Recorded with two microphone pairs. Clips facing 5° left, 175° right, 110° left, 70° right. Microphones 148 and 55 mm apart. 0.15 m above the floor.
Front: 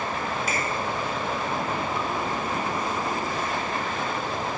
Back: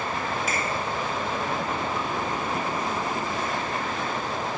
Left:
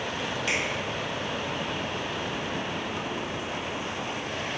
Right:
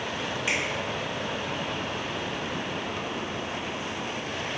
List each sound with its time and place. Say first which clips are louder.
0.5 s a finger snap: even, right 1 dB; 5° right, 1.3 m